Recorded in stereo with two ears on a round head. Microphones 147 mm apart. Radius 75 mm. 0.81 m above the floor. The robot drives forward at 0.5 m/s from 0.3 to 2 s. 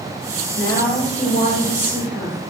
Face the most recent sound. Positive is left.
turn(degrees=15)  # may be behind; listen again after turning